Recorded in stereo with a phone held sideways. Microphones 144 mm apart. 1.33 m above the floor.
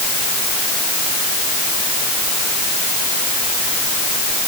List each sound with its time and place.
Only background noise.